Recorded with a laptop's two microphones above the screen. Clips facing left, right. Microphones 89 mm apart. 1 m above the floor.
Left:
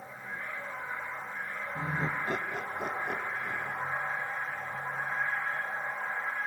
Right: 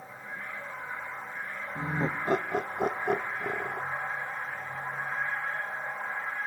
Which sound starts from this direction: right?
Laughter, at 1.8 s.